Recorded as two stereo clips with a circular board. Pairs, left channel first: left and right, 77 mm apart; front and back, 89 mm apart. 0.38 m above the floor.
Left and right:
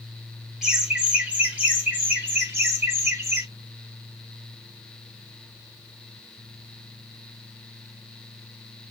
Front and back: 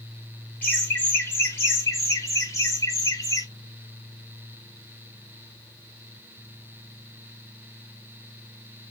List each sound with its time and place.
0.6 s laughter: 25° right, 1.5 m; by 3.5 s 40° right, 2.5 m